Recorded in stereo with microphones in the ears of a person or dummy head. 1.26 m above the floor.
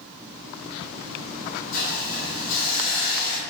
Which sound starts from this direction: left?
A hiss, at 1.7 s.